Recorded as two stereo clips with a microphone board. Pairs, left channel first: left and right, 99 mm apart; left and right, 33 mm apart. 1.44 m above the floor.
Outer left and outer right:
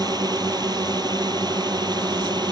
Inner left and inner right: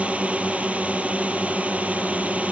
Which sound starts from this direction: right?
A drone, at 0.0 s.